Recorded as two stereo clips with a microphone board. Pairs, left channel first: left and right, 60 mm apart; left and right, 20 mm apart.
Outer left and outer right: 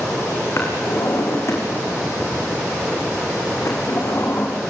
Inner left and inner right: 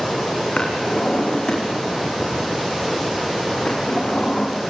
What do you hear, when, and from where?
0.6 s a drawer: 50° left (ahead or behind), 7 m